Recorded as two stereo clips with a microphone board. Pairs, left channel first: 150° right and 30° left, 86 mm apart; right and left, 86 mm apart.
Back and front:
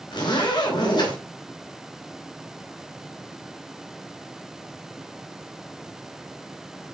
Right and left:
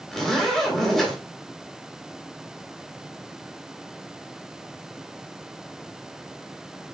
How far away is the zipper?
About 4 m.